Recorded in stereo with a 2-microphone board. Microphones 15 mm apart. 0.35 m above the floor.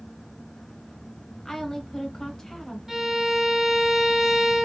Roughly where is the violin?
Centre.